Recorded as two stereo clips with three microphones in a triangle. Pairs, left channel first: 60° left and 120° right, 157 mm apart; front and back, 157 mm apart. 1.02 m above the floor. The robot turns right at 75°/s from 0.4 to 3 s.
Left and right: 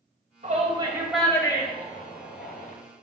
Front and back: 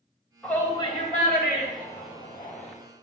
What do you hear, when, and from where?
0.4 s a shout: 85° right, 2.5 m; by 2.7 s 90° left, 2.5 m